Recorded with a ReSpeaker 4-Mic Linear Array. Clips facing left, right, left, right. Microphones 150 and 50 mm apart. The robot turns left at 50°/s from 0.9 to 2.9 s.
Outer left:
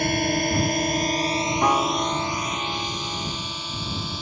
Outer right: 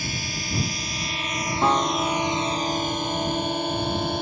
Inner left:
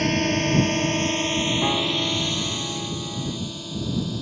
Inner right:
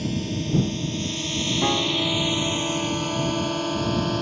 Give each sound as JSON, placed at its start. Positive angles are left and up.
{"t": 0.0, "sound": "a drone", "side_deg": 60}
{"t": 1.6, "sound": "a piano", "azimuth_deg": -175}